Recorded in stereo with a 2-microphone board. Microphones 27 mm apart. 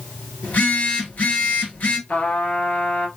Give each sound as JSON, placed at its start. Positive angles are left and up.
{"t": 0.4, "sound": "a phone buzzing", "side_deg": 65, "distance_m": 2.0}
{"t": 2.1, "sound": "a trumpet", "side_deg": 60, "distance_m": 1.4}